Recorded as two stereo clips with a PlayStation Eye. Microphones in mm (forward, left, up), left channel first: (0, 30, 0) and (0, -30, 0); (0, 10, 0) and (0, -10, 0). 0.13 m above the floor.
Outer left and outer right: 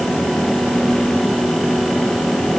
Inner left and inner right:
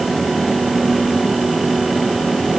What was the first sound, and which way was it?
Only background noise.